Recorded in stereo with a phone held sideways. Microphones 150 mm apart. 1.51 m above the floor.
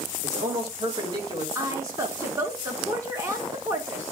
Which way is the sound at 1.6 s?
25° right (ahead or behind).